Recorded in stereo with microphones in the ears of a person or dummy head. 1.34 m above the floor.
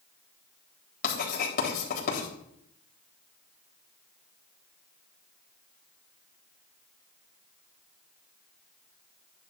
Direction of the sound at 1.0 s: 45° left (ahead or behind).